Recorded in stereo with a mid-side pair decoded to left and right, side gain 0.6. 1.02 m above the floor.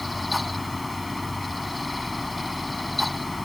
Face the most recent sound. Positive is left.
turn(degrees=10)